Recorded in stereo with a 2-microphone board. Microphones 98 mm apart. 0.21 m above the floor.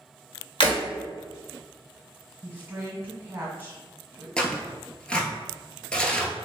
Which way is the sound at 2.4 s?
20° right (ahead or behind).